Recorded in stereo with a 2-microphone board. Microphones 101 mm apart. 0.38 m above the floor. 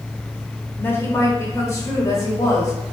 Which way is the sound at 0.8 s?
20° left (ahead or behind).